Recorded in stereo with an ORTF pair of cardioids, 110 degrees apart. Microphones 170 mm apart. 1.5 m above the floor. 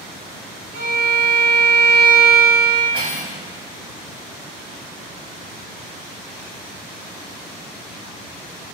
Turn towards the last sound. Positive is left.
turn(degrees=-30)